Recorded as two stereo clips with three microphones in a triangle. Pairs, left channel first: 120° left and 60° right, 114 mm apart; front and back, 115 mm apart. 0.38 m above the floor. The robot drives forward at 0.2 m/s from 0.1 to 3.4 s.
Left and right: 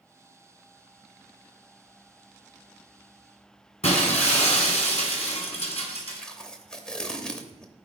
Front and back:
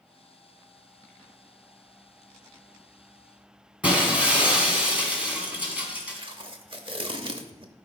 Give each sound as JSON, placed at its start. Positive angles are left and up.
{"t": 3.8, "sound": "breaking glass", "azimuth_deg": 100, "distance_m": 2.0}
{"t": 6.2, "sound": "tape being pulled", "azimuth_deg": -160, "distance_m": 0.8}